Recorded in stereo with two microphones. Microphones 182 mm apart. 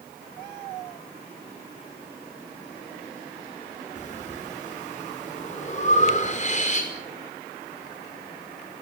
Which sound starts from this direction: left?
Breathing, at 4.0 s.